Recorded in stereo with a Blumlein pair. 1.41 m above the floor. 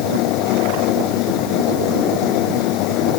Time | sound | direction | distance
0.0 | a fan | 40° left | ?